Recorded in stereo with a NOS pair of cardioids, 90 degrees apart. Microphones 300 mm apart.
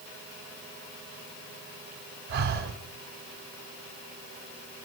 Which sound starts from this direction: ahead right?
Breathing, at 2.3 s.